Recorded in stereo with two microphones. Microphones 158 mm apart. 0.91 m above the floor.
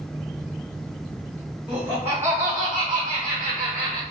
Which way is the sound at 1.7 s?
5° right (ahead or behind).